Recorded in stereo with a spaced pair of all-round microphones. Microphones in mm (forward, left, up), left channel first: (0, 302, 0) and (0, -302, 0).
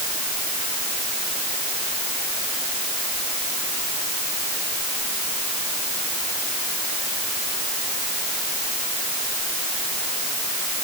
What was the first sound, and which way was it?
Only background noise.